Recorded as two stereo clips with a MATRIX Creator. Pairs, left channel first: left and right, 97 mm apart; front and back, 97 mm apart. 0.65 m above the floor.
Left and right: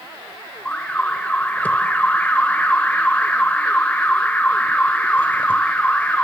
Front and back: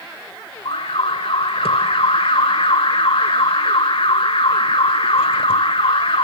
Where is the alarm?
15° left, 1.6 m.